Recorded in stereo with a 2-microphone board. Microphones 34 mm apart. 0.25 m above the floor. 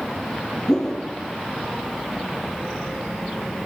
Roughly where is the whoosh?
Centre.